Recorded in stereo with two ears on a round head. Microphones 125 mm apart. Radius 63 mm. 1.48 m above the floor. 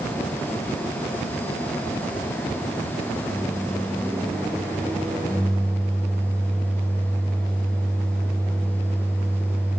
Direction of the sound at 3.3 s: 10° right (ahead or behind).